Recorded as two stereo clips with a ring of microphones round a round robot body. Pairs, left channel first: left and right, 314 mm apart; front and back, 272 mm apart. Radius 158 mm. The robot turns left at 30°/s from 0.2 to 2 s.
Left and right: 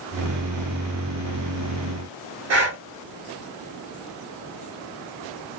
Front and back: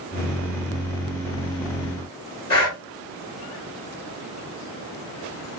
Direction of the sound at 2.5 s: 65° right.